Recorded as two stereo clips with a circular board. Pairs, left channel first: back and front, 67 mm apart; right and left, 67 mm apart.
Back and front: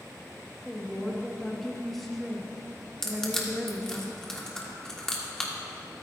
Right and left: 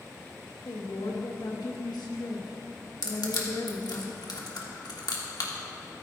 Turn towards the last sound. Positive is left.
turn(degrees=-100)